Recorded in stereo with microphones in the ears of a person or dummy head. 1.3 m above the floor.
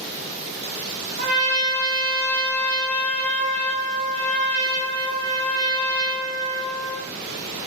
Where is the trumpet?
45° right (ahead or behind), 1.1 m.